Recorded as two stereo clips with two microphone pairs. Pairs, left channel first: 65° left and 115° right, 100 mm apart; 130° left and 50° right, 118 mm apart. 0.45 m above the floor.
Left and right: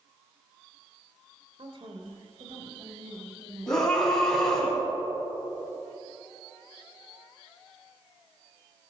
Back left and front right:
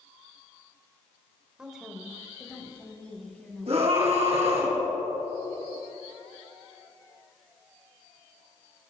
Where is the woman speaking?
130° right, 1.8 m; by 4.2 s 150° right, 4.5 m.